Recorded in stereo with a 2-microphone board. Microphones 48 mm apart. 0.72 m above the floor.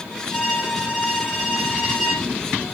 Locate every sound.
0.3 s a violin: 10° right (ahead or behind), 1.8 m